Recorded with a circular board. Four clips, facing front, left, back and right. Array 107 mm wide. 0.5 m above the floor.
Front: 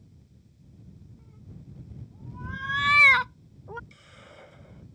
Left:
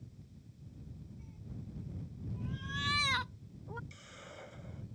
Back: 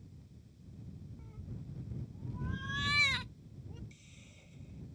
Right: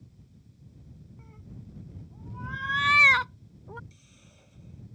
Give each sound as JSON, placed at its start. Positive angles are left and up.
{"t": 1.2, "sound": "a cat meowing", "azimuth_deg": -95}
{"t": 3.9, "sound": "a hiss", "azimuth_deg": 40}